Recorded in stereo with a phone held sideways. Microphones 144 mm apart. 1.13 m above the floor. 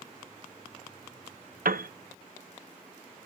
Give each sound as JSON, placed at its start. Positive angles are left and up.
{"t": 1.6, "sound": "a piano", "side_deg": -80, "distance_m": 0.6}